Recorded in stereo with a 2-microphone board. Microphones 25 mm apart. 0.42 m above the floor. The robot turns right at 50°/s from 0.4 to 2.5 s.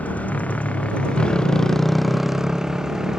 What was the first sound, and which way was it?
A motorcycle, 95° left.